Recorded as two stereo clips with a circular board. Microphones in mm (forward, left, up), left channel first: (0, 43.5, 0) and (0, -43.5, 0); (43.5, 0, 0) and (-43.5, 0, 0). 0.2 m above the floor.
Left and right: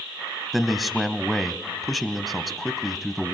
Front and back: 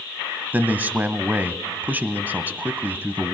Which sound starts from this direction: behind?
A man speaking, at 0.5 s.